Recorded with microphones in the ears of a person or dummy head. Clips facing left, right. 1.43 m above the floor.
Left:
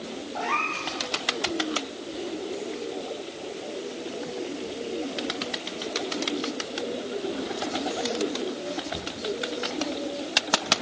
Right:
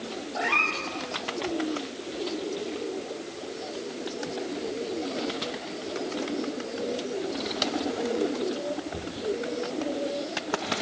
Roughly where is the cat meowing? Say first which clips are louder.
Right 1 dB; right.